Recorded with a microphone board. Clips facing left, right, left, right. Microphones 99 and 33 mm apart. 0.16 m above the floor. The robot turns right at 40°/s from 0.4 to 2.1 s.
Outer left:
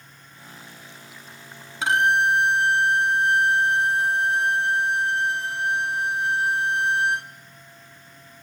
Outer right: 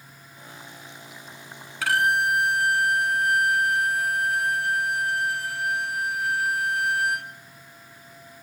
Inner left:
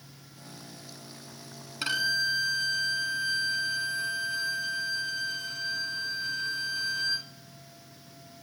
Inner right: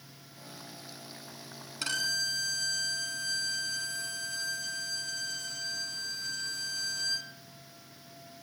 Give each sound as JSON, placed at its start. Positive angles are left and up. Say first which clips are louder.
{"t": 1.8, "sound": "a violin", "louder": "outer left 2 dB, inner left 5 dB", "side_deg": 25, "distance_m": 1.0}